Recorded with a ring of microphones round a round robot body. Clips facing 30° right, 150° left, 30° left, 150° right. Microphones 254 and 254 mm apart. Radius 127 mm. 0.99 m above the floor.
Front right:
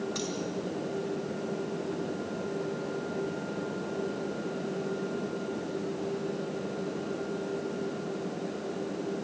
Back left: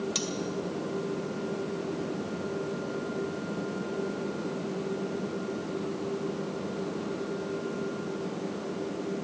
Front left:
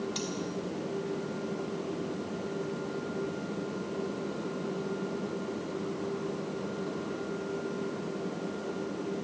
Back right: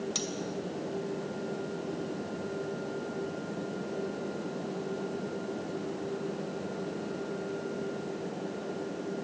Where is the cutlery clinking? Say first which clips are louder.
Even, front left 1 dB; 175° right, 2.5 m.